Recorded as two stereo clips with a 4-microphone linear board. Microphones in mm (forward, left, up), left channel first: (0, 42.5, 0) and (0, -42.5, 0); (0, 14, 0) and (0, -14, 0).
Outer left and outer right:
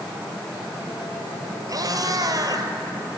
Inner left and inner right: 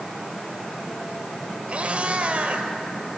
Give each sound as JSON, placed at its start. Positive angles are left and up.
{"t": 1.7, "sound": "a cat meowing", "side_deg": -45, "distance_m": 2.5}